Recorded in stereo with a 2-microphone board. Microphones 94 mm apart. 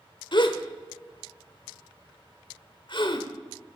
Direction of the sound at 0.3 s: 55° left (ahead or behind).